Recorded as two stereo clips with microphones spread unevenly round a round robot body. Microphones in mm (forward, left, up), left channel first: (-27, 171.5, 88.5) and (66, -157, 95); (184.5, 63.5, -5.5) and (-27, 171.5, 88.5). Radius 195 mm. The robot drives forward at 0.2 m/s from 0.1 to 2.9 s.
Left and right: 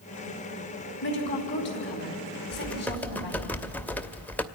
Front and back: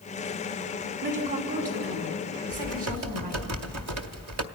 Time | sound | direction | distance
1.0 | a woman speaking | 160° left | 3.5 m
2.5 | typing on a keyboard | 170° right | 0.6 m